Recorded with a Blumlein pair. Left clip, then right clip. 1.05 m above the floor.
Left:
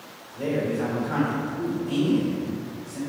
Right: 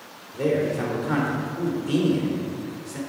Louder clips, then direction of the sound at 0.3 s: Right 3 dB; 30° right.